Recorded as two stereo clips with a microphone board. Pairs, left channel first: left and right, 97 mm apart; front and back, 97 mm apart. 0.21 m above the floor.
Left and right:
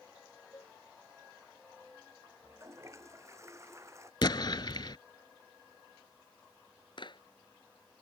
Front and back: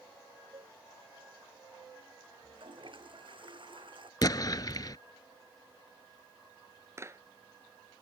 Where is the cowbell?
150° left.